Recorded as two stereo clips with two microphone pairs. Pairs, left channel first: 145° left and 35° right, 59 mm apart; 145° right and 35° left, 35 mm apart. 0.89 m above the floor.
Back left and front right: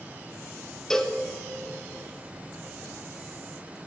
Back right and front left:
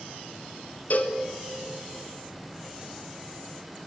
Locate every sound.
0.9 s a cowbell: 140° right, 0.5 m